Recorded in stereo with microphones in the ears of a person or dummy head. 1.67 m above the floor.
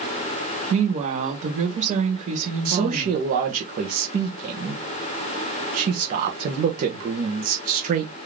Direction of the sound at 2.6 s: 40° right (ahead or behind).